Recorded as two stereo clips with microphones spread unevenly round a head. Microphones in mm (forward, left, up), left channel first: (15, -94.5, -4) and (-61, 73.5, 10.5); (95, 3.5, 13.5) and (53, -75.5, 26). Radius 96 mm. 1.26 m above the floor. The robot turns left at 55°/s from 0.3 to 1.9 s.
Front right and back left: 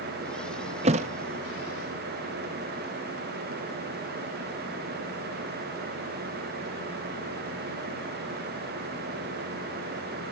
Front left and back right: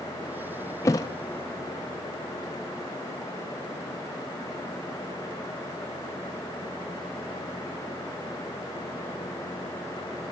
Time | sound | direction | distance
0.8 | a thud | 125° left | 0.6 m